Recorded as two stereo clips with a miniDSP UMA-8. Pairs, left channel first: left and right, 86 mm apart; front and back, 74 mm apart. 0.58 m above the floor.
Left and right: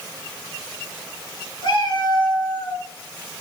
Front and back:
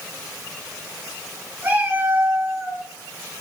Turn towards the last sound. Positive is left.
turn(degrees=130)